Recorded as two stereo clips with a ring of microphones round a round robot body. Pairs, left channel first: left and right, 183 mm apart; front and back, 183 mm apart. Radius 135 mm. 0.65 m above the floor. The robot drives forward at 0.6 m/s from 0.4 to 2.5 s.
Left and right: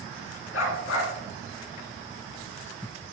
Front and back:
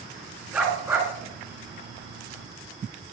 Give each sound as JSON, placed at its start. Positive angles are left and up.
{"t": 0.5, "sound": "a dog barking", "azimuth_deg": 90, "distance_m": 2.5}